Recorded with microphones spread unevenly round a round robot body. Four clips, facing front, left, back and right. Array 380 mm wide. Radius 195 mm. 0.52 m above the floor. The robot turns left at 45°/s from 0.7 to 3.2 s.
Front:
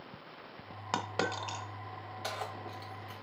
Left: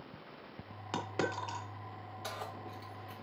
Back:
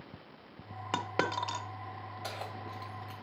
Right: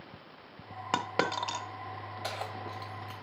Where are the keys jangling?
65° right, 2.5 m; by 3.1 s 105° right, 2.5 m.